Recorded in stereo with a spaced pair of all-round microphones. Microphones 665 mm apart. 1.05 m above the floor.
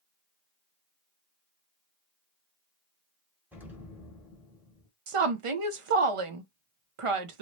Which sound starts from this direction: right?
A woman speaking, at 5.1 s.